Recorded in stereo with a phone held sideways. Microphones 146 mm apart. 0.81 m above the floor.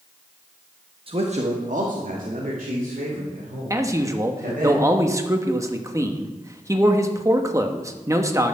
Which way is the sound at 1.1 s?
40° right (ahead or behind).